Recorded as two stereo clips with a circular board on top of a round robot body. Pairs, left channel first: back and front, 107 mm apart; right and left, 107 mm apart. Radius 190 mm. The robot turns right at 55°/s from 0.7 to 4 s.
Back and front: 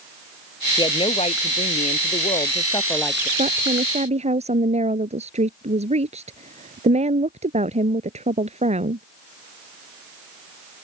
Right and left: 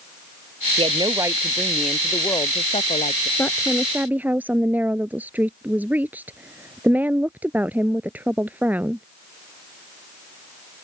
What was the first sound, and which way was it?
A woman speaking, 125° left.